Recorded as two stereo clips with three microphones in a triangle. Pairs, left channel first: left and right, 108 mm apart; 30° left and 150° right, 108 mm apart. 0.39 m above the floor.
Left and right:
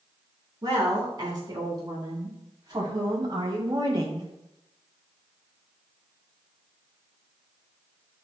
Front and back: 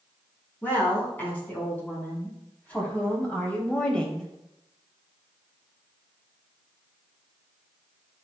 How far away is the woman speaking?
About 4 m.